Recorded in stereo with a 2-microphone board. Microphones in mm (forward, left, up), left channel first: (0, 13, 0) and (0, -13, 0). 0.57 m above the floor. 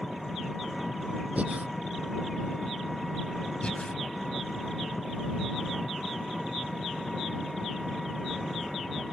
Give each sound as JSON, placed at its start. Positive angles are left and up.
{"t": 0.0, "sound": "an engine running", "side_deg": 0}
{"t": 1.4, "sound": "breathing", "side_deg": -75}
{"t": 3.6, "sound": "breathing", "side_deg": 50}